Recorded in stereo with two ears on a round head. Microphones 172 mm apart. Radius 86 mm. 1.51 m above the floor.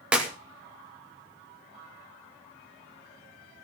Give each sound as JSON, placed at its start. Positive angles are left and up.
{"t": 0.1, "sound": "a clap", "side_deg": -5, "distance_m": 2.5}